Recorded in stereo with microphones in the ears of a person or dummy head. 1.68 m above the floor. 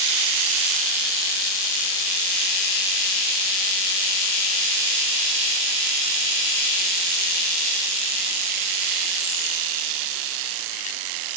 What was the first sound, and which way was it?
Only background noise.